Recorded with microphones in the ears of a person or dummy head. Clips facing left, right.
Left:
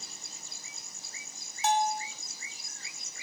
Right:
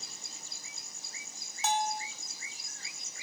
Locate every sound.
1.6 s a bell: 75° right (ahead or behind), 1.2 m